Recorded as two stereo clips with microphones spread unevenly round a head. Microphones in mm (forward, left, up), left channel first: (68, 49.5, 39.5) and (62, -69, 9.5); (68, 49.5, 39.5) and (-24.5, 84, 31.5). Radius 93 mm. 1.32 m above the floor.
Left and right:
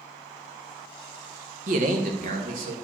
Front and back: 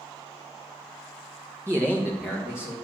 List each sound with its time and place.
1.7 s a man speaking: 125° right, 0.8 m; by 2.7 s 115° right, 1.8 m